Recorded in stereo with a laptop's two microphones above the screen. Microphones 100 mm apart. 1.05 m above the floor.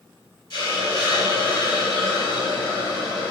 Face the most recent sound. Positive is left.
turn(degrees=50)  # may be behind; listen again after turning